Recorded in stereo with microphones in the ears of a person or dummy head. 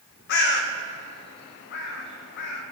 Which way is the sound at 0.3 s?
60° left (ahead or behind).